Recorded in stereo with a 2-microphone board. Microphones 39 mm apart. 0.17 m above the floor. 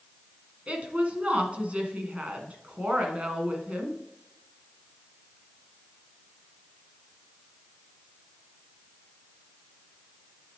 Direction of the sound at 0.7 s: 35° right (ahead or behind).